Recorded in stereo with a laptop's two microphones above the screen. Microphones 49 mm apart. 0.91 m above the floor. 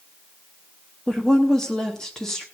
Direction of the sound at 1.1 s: 10° left (ahead or behind).